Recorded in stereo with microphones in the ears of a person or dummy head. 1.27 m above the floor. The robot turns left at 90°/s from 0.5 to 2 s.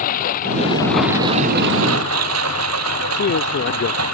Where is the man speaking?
60° left (ahead or behind).